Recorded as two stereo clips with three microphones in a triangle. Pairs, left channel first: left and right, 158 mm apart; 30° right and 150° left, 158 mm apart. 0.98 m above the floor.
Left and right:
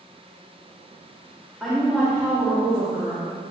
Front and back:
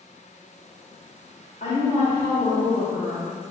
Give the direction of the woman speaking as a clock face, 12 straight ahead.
12 o'clock.